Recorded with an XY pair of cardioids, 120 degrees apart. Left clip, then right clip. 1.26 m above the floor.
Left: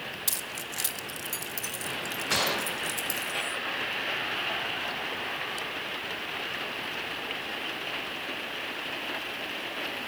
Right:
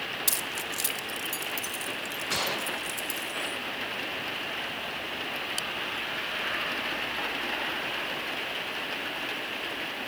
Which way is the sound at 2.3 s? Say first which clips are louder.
Left 2 dB; 20° left.